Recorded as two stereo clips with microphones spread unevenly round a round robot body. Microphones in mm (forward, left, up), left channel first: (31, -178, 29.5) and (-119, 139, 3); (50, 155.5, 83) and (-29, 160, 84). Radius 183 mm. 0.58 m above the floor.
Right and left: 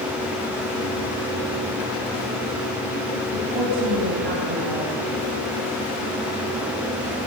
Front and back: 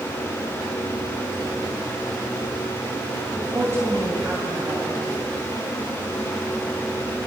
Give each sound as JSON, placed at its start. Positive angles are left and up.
{"t": 3.3, "sound": "a woman speaking", "azimuth_deg": 120, "distance_m": 5.0}